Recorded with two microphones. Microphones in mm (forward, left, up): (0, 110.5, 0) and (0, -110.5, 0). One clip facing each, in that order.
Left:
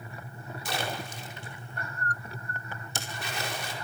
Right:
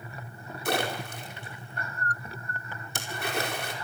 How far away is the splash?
About 5 m.